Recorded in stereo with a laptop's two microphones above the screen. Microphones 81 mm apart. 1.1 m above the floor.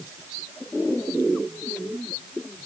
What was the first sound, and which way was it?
Only background noise.